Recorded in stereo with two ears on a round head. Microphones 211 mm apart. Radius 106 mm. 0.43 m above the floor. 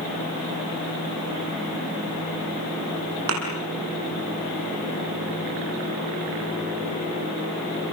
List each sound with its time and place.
3.3 s a thud: 65° right (ahead or behind), 5 m